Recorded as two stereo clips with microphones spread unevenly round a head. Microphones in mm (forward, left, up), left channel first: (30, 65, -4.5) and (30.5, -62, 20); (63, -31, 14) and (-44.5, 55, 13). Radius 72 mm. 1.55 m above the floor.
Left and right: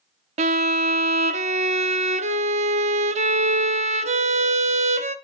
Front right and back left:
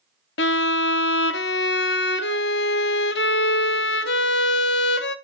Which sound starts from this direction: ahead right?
A violin, at 0.4 s.